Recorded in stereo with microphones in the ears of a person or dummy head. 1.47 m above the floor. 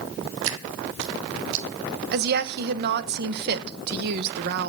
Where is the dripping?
65° right (ahead or behind), 1.5 m.